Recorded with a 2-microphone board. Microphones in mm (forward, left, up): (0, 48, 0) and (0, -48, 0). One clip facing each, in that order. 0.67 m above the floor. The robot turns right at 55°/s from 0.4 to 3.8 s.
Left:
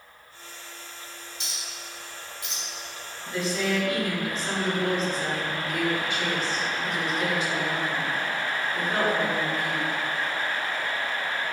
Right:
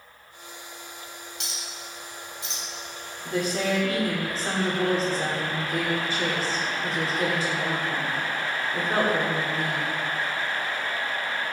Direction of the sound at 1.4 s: 85° right.